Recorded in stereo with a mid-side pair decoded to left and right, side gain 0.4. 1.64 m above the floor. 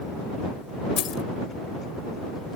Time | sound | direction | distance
1.0 | keys jangling | 65° left | ?